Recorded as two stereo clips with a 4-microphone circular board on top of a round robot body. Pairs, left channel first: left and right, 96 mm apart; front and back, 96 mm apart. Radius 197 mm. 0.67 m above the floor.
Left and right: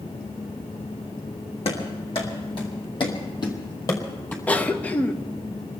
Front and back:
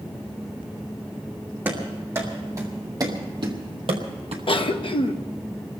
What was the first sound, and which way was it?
Running footsteps, 110° left.